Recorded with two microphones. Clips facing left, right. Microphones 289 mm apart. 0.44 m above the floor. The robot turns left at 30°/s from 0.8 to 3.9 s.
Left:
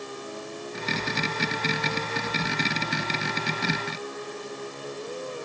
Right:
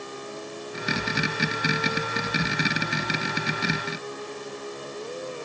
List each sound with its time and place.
Only background noise.